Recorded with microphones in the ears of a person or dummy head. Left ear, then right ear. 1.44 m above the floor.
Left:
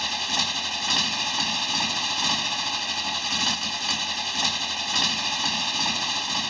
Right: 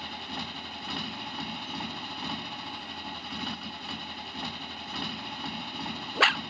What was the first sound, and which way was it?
A motorcycle, 55° left (ahead or behind).